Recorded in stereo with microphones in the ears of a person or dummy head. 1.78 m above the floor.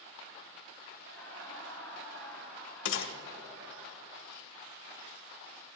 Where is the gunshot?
80° left, 1.7 m.